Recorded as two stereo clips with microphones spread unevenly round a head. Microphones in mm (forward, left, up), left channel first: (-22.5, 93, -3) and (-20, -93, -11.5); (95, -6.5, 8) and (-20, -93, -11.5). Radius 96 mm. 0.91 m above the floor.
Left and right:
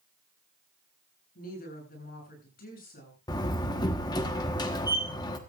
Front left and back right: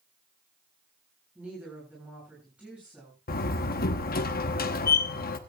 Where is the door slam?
20° left, 1.1 m.